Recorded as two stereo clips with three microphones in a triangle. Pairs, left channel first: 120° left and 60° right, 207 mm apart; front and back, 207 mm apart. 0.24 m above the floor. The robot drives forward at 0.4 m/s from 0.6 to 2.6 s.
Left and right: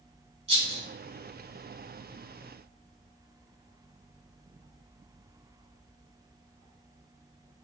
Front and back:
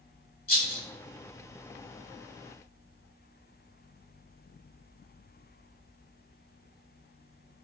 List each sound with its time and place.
0.5 s a rattle: 15° right, 0.8 m